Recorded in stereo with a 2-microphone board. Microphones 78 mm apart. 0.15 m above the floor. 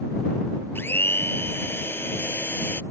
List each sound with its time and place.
0.8 s a blender: 30° left (ahead or behind)